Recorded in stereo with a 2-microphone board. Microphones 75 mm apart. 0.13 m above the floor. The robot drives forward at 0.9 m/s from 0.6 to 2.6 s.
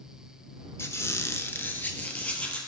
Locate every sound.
0.8 s a squeak: 35° left (ahead or behind), 0.7 m; by 2.6 s 15° left (ahead or behind), 1.6 m